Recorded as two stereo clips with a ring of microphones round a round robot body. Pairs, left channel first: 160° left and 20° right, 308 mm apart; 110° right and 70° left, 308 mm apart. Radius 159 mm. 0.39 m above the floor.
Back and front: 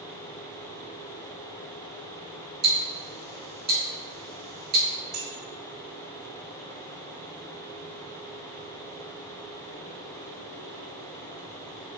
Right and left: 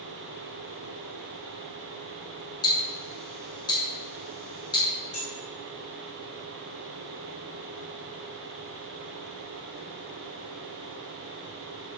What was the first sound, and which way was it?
Ticking, 50° right.